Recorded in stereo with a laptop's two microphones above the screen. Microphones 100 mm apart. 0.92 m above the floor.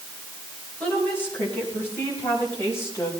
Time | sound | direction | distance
0.8 | a woman speaking | 15° left (ahead or behind) | 6 m